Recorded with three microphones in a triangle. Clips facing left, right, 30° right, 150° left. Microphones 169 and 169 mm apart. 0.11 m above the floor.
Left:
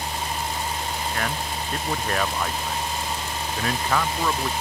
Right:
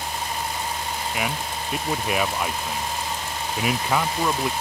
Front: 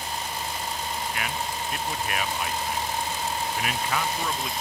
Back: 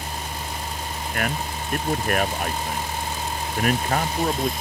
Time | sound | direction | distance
1.1 | a man speaking | 170° right | ?